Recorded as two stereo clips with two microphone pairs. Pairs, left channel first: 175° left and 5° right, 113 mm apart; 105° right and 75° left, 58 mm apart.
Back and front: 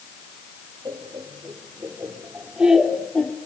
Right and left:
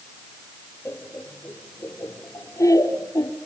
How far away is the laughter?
About 4.5 m.